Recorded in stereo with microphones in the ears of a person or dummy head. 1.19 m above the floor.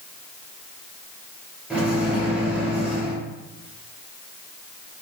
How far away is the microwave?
About 0.6 m.